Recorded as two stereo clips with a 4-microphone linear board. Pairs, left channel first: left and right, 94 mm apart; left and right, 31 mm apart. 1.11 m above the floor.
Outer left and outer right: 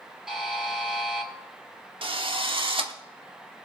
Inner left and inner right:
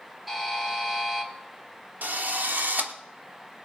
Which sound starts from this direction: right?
A drill, at 2.0 s.